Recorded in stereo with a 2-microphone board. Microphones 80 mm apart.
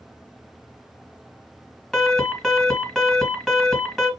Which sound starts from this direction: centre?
An alarm, at 1.9 s.